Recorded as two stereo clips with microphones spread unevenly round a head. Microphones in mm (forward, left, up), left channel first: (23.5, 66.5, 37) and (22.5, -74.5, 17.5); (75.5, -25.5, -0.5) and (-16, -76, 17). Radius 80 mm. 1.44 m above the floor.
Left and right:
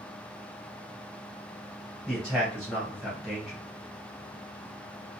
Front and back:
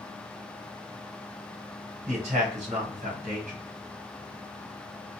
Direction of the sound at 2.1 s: 175° left.